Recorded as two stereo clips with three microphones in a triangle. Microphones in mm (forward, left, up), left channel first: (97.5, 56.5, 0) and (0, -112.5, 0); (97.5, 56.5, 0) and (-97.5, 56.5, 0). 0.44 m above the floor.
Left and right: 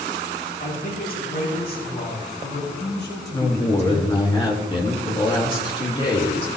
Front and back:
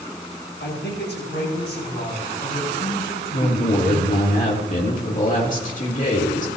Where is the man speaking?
20° left, 5 m; by 4.3 s 45° left, 6.5 m.